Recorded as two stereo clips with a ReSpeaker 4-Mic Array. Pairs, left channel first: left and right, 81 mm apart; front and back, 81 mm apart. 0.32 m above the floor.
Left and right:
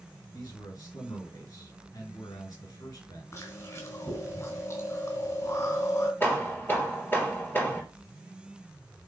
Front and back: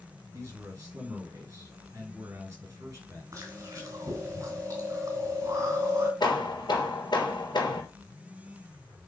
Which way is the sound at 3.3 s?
135° left.